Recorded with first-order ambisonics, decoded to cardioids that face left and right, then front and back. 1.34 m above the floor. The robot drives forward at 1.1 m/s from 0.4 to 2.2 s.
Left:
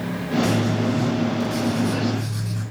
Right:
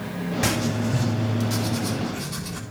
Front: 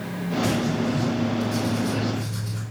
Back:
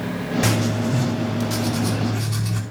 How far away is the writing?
About 3 m.